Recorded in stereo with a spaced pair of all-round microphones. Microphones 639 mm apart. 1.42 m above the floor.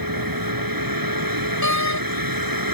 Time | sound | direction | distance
0.0 | a vehicle | 30° right (ahead or behind) | ?
1.6 | a door slam | 25° left (ahead or behind) | ?